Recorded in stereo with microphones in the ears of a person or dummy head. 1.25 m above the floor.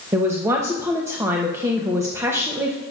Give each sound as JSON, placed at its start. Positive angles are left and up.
{"t": 0.1, "sound": "a man speaking", "side_deg": -15, "distance_m": 0.8}